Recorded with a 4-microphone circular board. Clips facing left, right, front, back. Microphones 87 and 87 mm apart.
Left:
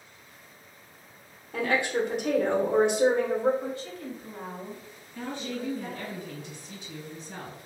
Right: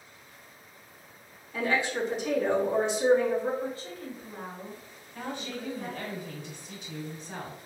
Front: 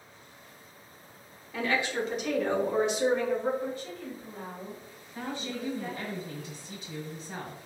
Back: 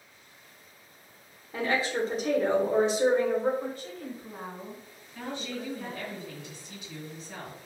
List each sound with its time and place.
1.5 s a woman speaking: 120° left, 0.7 m
3.6 s a woman speaking: 140° right, 1.4 m
5.2 s a woman speaking: 55° right, 1.2 m